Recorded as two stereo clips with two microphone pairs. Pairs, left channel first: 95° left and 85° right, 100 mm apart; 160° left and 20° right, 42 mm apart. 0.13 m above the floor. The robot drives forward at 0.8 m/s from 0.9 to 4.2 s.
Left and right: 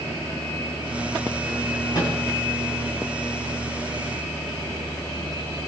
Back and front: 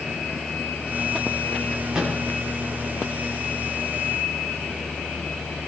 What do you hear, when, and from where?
1.9 s a microwave: 55° left, 7 m